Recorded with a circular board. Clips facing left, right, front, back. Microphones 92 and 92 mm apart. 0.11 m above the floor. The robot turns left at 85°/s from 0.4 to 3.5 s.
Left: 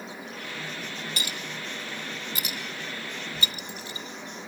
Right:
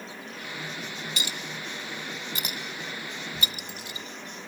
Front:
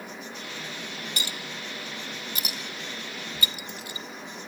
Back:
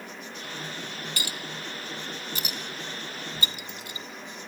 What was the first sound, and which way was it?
A clink, 65° left.